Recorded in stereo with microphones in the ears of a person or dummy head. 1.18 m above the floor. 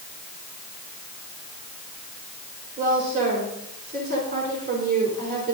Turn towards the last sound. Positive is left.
turn(degrees=-50)  # may be behind; listen again after turning